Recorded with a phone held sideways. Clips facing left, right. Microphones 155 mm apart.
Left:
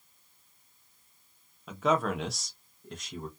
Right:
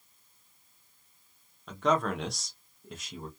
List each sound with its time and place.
1.7 s a man speaking: 5° left (ahead or behind), 0.7 m; by 3.3 s 5° right (ahead or behind), 0.8 m